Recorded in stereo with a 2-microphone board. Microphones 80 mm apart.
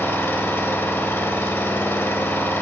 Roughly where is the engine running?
Left.